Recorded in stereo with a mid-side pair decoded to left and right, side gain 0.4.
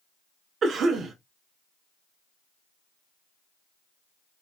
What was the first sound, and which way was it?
A cough, 60° right.